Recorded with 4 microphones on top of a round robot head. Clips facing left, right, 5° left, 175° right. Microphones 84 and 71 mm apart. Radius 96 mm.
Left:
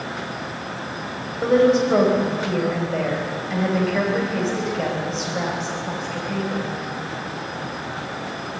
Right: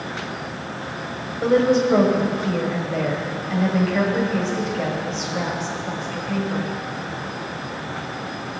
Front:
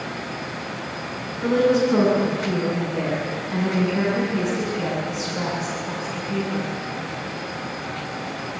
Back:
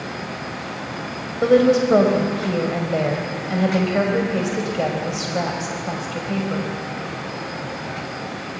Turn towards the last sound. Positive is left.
turn(degrees=180)